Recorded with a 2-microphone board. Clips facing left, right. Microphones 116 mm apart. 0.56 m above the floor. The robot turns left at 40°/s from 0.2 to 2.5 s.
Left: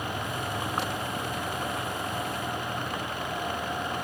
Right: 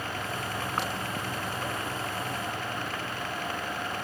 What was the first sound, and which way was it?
Only background noise.